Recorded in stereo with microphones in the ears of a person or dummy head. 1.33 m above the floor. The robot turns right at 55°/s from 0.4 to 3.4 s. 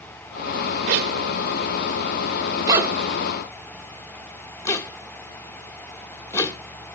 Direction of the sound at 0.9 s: 50° right (ahead or behind).